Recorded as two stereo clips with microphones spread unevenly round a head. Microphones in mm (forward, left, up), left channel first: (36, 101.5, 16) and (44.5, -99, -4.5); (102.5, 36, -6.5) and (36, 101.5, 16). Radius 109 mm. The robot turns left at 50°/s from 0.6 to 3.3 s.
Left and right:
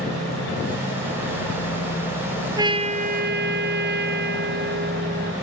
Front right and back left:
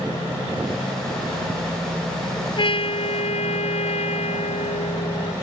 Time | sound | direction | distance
2.6 | a trumpet | 15° right | ?